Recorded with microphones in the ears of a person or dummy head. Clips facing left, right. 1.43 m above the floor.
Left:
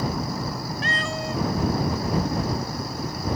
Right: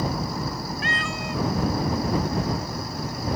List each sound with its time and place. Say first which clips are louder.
0.8 s a cat meowing: left 1 dB; 35° left (ahead or behind)